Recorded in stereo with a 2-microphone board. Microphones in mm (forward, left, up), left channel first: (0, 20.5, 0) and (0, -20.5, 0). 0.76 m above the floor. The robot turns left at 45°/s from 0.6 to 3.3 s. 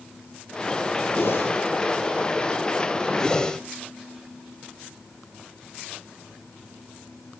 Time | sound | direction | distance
1.1 | a whoosh | 85° left | 6 m
3.2 | a whoosh | 15° left (ahead or behind) | 2 m